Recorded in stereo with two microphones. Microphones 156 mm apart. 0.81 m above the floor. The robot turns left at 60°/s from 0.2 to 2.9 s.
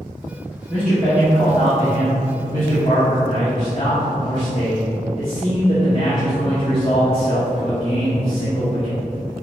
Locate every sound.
0.7 s a man speaking: straight behind, 2 m; by 9.0 s 45° left, 2 m